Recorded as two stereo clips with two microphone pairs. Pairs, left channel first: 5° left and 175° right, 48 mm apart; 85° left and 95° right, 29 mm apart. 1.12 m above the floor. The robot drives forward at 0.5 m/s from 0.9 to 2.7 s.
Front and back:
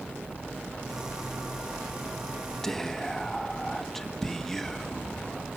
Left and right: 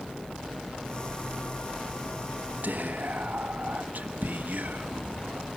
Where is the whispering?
75° right, 1.3 m; by 5.5 s 80° right, 1.3 m.